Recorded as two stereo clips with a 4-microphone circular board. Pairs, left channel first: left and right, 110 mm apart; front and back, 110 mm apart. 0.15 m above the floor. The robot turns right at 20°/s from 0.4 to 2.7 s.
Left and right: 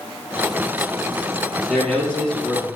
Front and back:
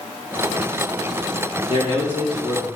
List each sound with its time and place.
1.7 s a man speaking: 5° left, 3 m; by 2.7 s 25° left, 3 m